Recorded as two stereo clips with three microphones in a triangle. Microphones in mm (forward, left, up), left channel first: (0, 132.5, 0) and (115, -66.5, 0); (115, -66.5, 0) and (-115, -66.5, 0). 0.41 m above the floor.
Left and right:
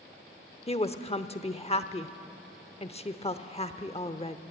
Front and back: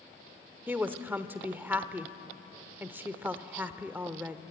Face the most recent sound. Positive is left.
turn(degrees=110)